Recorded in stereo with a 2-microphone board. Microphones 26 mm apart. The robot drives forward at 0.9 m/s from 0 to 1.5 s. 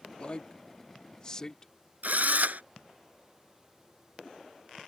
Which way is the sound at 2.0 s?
75° right (ahead or behind).